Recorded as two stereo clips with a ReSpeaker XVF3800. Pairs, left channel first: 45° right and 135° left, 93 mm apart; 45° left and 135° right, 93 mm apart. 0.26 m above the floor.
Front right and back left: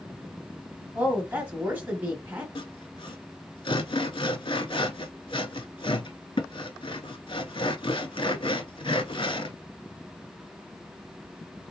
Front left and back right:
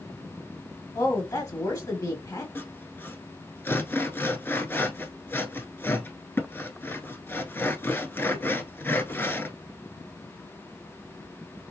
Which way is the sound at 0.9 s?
70° left.